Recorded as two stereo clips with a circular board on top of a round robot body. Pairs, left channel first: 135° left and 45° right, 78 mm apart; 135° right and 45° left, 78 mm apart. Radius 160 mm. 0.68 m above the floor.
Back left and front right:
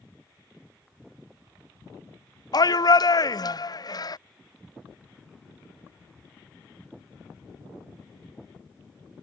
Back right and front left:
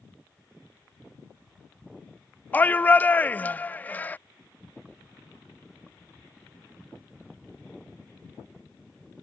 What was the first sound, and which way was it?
A shout, 160° left.